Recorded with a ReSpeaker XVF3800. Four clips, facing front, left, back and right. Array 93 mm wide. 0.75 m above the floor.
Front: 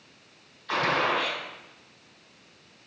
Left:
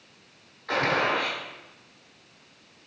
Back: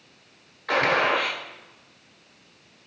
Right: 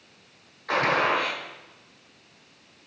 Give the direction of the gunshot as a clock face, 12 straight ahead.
6 o'clock.